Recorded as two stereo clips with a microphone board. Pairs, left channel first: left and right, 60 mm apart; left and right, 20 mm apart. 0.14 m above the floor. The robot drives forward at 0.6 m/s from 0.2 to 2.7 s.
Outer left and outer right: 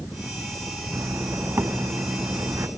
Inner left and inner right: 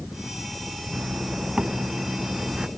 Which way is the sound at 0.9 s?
50° right (ahead or behind).